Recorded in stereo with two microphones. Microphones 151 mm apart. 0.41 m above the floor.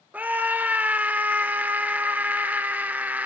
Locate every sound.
0.1 s a scream: 10° right (ahead or behind), 0.7 m